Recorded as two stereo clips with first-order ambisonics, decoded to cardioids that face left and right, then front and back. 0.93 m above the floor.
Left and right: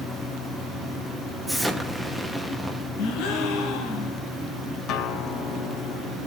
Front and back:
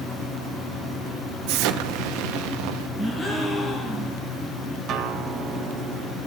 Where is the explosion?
Straight behind, 0.8 m.